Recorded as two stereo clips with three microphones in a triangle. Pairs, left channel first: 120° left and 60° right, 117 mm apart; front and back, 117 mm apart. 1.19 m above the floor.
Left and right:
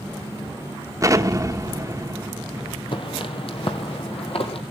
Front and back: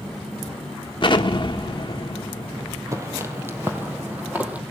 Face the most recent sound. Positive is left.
turn(degrees=105)